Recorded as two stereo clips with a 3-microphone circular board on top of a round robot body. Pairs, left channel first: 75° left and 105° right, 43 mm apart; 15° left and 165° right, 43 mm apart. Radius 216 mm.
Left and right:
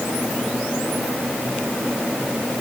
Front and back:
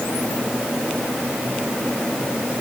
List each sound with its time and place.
Only background noise.